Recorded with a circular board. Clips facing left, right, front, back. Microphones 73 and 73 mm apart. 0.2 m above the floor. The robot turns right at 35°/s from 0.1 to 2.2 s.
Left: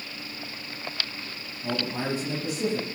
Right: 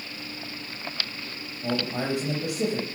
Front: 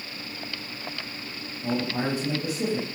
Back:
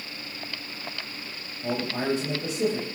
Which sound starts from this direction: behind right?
A man speaking, at 1.6 s.